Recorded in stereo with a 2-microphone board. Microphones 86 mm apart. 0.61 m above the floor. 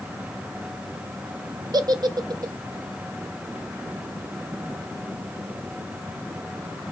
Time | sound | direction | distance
1.7 | a giggle | 55° right (ahead or behind) | 0.5 m